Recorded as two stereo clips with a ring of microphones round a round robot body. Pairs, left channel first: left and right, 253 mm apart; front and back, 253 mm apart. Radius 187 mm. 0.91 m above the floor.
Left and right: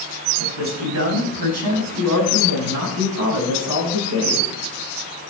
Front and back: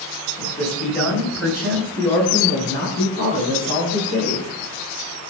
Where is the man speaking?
80° right, 5 m.